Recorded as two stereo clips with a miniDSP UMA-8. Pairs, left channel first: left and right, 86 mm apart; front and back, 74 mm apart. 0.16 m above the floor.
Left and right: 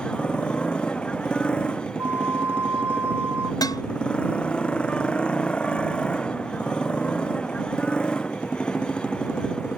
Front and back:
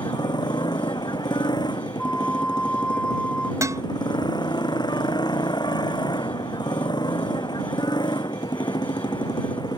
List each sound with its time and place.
0.0 s a motorcycle: 10° left
2.0 s a flute: 65° right
3.6 s dishes clattering: 135° left